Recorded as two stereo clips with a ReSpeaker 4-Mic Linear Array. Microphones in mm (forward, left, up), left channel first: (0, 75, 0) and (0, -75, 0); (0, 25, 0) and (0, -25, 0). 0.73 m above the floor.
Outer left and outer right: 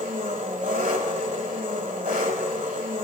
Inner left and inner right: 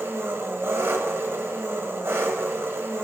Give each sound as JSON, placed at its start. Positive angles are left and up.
{"t": 0.0, "sound": "an engine running", "side_deg": -65, "distance_m": 1.3}